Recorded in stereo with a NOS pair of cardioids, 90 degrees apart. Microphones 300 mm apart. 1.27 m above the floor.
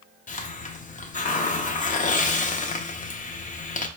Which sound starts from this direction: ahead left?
A hiss, at 0.3 s.